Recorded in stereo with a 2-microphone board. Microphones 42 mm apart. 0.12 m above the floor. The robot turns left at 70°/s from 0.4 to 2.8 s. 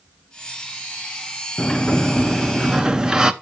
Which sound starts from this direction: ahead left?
A sliding door, at 1.6 s.